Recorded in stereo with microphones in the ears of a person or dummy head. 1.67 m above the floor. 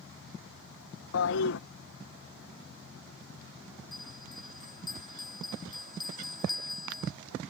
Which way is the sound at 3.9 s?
20° left (ahead or behind).